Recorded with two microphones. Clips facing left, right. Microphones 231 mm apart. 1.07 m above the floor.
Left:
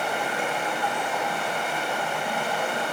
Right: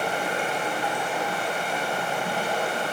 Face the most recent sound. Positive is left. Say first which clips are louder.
# right 1 dB
turn(degrees=-40)  # may be behind; listen again after turning